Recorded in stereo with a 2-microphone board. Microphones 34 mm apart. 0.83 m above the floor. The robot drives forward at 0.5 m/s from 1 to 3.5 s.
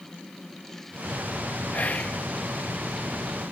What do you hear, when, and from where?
1.7 s whispering: 45° left (ahead or behind)